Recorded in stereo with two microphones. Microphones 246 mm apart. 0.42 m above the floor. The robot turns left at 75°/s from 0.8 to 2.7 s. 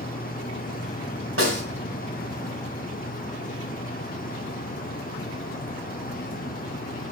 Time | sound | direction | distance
1.4 | a snare drum | 60° right (ahead or behind) | 3 m